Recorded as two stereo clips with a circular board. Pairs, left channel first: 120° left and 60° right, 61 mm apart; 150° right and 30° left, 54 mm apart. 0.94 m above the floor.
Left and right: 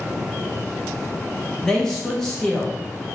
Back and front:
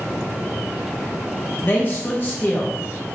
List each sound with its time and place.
1.6 s a man speaking: 165° right, 0.6 m